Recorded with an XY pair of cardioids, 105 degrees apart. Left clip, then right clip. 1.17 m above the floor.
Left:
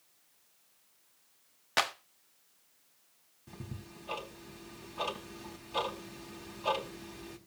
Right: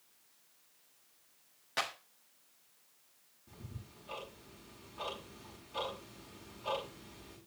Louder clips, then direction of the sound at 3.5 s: Left 6 dB; 60° left.